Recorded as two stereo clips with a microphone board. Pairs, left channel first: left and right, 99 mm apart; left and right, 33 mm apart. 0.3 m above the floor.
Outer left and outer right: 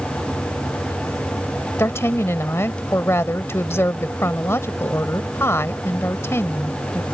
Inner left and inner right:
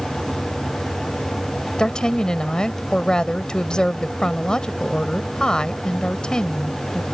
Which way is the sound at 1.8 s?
30° left (ahead or behind).